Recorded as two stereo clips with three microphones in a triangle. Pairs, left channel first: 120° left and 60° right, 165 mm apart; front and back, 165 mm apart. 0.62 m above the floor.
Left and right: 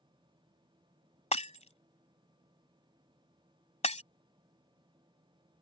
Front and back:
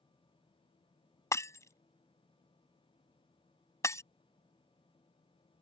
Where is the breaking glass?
70° left.